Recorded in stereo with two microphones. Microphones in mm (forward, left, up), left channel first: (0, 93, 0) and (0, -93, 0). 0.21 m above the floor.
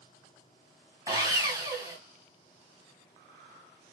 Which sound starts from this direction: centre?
Sawing, at 1.1 s.